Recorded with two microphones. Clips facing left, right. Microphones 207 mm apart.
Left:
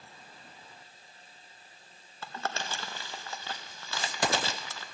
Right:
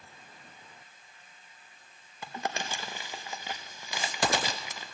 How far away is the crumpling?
About 0.5 m.